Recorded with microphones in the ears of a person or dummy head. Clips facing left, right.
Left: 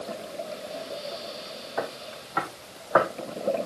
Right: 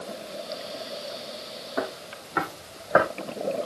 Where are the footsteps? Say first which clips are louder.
Right 1 dB; 55° right (ahead or behind), 3.5 m; by 3.1 s 30° right (ahead or behind), 3 m.